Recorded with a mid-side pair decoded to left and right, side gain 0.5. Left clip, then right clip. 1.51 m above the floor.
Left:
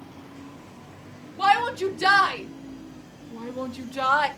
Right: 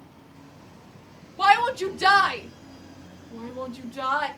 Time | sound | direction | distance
1.4 | a shout | 15° right | 3.5 m